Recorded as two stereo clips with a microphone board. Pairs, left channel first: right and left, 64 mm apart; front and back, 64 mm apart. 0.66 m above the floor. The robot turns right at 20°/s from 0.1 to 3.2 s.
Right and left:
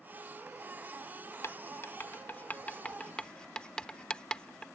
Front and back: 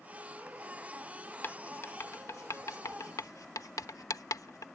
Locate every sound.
1.4 s writing: 50° right; by 4.7 s 15° right